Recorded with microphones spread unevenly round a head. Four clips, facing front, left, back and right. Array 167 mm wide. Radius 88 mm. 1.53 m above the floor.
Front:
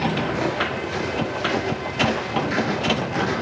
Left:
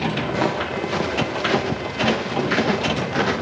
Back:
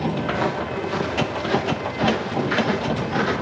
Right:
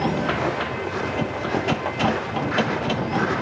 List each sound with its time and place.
0.3 s footsteps: 100° left, 8 m; by 3.3 s 105° left, 10.5 m